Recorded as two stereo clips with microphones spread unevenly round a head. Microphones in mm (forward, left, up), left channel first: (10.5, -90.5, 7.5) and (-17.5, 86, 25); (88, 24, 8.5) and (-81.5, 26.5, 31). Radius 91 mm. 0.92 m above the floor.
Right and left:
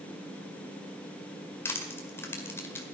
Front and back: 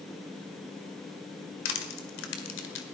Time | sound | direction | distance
1.6 | crushing | 5° right | 1.9 m